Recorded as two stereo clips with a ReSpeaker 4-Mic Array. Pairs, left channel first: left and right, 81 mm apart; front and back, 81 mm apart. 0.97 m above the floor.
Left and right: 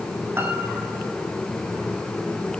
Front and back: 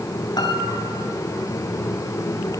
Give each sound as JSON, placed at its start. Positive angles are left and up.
{"t": 0.4, "sound": "a piano", "azimuth_deg": -30, "distance_m": 3.5}